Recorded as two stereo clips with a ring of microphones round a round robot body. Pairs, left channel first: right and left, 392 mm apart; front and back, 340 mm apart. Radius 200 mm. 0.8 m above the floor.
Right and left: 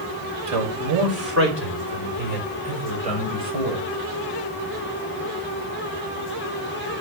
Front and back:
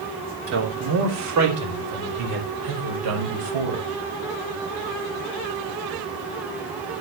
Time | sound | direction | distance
0.5 | a man speaking | 130° left | 3 m